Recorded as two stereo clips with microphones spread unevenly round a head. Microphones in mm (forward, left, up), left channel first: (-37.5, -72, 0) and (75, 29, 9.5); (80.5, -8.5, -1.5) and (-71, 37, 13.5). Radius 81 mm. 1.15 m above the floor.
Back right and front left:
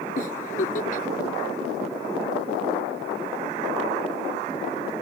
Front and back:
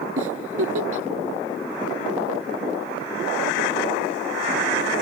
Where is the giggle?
175° left.